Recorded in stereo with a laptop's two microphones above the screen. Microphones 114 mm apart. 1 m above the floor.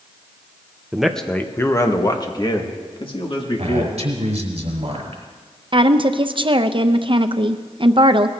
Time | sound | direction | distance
0.9 | a man speaking | 5° right (ahead or behind) | 1.0 m
3.6 | a man speaking | 70° right (ahead or behind) | 4.5 m
5.7 | a woman speaking | 50° right (ahead or behind) | 0.6 m